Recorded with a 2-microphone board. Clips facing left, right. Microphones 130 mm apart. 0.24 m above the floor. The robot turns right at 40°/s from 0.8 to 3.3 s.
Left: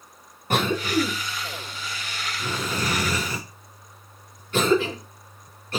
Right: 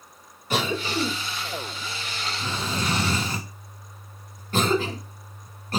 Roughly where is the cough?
Left.